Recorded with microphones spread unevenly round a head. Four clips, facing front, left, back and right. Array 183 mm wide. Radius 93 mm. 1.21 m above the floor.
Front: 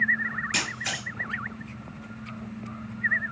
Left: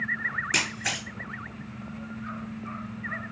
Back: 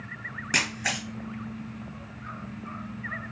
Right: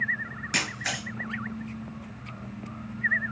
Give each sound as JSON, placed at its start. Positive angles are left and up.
{"t": 0.5, "sound": "a camera shutter", "azimuth_deg": 165, "distance_m": 2.5}